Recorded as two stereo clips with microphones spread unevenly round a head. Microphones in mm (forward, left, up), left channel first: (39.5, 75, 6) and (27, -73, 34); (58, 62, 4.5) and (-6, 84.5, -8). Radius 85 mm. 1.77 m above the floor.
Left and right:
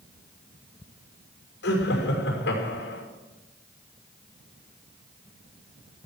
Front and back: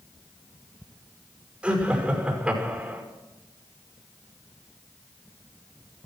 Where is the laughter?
85° left, 6 m.